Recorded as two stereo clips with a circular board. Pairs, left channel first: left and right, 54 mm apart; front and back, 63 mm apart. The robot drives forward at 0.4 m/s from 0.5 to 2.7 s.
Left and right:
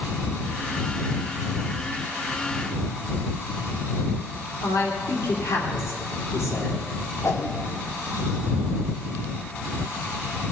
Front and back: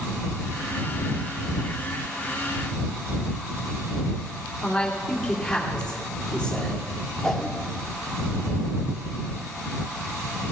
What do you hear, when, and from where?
4.6 s a man speaking: 80° left, 3 m
7.2 s a whoosh: 80° left, 1.4 m